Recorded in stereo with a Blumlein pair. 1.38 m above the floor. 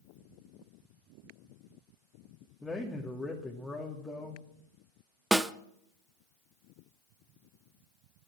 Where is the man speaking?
5° left, 2 m.